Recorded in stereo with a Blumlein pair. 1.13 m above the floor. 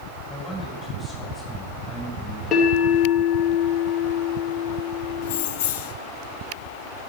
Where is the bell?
25° left, 2.5 m.